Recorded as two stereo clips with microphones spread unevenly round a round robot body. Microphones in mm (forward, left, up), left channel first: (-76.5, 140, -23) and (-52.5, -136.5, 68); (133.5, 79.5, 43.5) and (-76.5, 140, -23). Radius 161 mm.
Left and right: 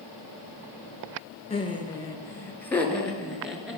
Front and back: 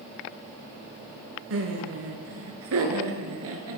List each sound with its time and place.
1.5 s laughter: 160° left, 3.5 m; by 3.8 s 175° right, 4 m